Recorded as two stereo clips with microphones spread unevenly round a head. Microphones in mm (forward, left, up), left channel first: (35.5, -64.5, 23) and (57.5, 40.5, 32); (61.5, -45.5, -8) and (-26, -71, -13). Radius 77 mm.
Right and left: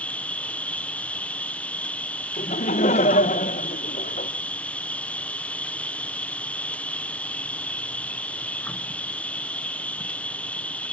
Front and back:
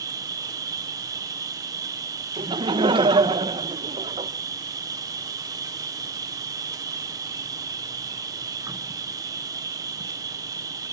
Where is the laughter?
130° right, 0.8 m.